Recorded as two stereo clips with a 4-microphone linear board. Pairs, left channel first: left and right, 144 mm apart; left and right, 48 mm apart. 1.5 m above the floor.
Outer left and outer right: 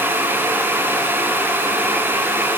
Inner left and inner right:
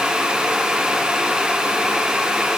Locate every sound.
Only background noise.